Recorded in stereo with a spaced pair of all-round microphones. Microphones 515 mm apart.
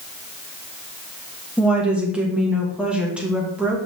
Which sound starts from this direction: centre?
A woman speaking, at 1.6 s.